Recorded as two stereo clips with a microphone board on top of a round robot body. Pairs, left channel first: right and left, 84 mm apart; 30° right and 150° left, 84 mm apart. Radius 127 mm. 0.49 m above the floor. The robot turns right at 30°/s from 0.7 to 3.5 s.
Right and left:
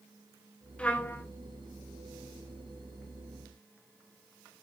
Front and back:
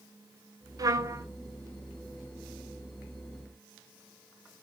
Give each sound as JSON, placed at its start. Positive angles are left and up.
{"t": 0.8, "sound": "a trumpet", "azimuth_deg": -165, "distance_m": 2.5}